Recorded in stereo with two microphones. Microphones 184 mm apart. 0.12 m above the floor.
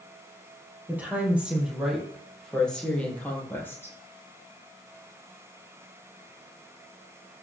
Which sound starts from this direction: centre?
A woman speaking, at 0.9 s.